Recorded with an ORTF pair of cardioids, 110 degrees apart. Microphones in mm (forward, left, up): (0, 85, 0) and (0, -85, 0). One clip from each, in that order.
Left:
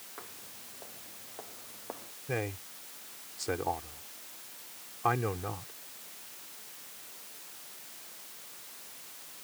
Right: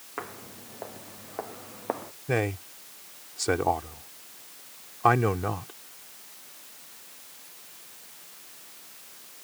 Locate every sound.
0.2 s footsteps: 65° right
2.3 s a man speaking: 45° right